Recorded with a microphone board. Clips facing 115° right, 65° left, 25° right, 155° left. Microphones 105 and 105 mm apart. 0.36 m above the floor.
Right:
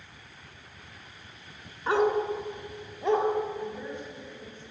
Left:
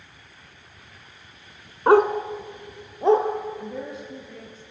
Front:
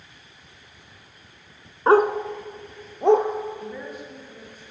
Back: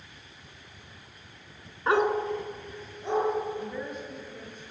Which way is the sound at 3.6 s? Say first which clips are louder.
Left 2 dB, even; 65° left.